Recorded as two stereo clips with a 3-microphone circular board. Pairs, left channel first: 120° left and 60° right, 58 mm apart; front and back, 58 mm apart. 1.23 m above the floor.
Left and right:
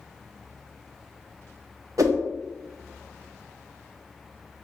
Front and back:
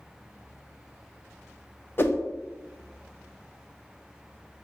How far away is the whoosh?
About 0.6 m.